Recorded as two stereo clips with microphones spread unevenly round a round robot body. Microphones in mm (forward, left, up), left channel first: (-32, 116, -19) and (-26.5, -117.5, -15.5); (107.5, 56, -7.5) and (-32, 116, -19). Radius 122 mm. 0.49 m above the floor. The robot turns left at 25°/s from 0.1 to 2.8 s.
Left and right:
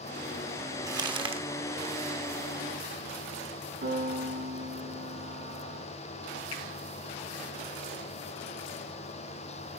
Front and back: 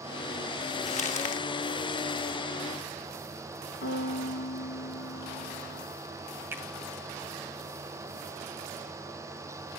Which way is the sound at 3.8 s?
30° right.